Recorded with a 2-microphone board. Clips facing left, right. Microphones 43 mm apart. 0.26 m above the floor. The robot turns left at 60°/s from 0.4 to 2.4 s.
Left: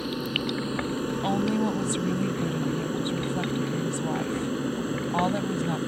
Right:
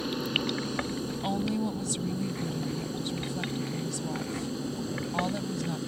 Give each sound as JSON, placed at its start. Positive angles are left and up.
{"t": 0.0, "sound": "an aircraft", "side_deg": 5}
{"t": 1.1, "sound": "a woman speaking", "azimuth_deg": 160}